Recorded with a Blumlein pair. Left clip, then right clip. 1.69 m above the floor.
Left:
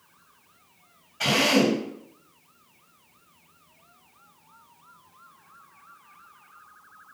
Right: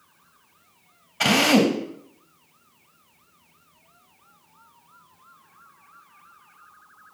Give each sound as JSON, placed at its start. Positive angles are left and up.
{"t": 1.2, "sound": "a drill", "azimuth_deg": -65, "distance_m": 2.5}